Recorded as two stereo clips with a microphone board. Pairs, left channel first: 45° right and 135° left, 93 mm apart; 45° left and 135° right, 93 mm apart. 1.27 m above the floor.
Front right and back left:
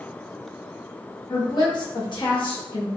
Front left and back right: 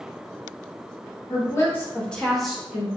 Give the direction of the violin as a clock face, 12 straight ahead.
I don't hear a violin.